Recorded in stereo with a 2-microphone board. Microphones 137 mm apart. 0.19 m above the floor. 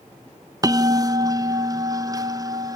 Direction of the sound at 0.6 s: 25° right (ahead or behind).